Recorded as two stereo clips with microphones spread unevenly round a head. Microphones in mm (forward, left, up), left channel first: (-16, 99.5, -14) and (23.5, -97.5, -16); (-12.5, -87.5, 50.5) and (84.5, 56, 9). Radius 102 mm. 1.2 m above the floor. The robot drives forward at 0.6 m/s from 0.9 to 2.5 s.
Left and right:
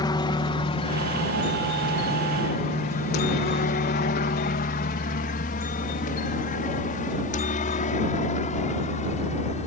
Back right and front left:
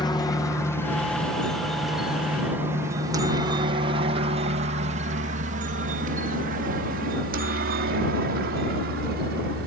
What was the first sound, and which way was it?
A helicopter, 165° left.